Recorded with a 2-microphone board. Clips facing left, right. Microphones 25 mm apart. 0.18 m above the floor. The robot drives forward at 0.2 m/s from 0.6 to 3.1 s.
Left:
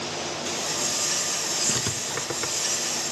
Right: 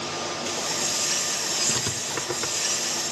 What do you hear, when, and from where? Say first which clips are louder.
1.7 s writing: even; centre (ahead or behind), 0.6 m